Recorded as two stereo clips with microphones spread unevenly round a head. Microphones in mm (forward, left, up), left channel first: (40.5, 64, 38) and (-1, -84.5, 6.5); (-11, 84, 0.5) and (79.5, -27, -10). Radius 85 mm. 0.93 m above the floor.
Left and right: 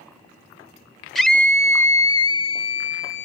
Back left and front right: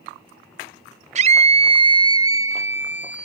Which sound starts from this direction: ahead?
A scream, at 1.1 s.